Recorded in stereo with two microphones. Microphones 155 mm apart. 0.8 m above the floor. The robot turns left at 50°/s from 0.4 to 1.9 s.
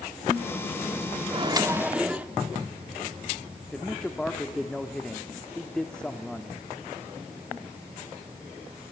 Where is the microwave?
35° right (ahead or behind), 1.3 m; by 2.3 s 10° right (ahead or behind), 1.3 m.